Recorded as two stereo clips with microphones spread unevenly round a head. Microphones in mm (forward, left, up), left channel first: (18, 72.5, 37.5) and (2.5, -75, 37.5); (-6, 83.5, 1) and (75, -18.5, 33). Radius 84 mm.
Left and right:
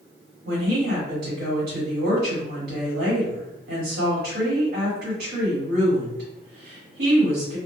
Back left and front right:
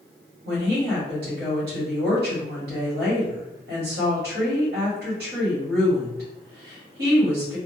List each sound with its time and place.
0.5 s a woman speaking: 80° right, 1.6 m